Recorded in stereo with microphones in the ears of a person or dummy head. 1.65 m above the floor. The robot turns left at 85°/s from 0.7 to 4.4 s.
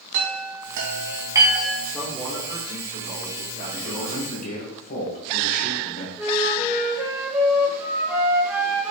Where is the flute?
10° right (ahead or behind), 1.2 m.